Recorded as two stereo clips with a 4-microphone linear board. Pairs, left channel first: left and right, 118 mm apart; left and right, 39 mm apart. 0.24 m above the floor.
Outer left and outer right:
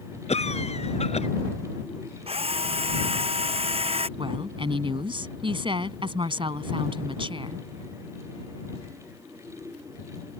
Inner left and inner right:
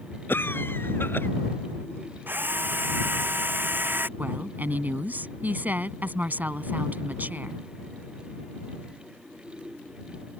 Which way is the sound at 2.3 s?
55° right (ahead or behind).